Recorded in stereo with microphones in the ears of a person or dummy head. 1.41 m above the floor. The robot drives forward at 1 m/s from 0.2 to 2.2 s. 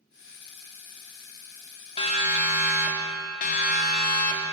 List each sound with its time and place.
2.0 s a siren: 35° left (ahead or behind), 4 m; by 4.4 s 55° left (ahead or behind), 4 m